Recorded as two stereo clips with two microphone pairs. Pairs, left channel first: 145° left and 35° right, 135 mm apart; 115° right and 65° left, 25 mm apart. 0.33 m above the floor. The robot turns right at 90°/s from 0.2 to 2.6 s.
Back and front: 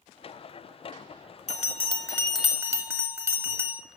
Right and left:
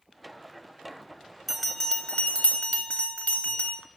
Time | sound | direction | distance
1.5 | a bell | 155° left | 0.6 m